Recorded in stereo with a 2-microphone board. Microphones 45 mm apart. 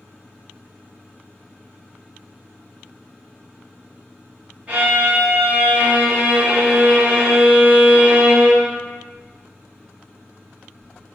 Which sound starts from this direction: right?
A violin, at 4.7 s.